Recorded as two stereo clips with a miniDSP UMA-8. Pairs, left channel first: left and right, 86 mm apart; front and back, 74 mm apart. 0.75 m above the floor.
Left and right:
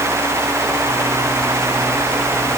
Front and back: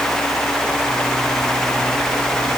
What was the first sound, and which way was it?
Only background noise.